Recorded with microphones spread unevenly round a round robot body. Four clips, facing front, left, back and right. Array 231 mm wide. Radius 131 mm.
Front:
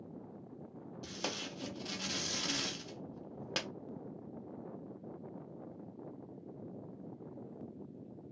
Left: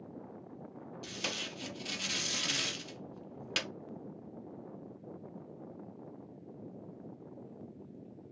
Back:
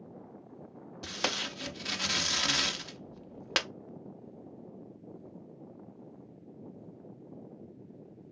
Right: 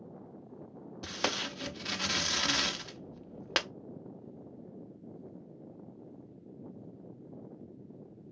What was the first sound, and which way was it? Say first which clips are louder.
Tape being pulled: right 8 dB, back 6 dB; 135° right.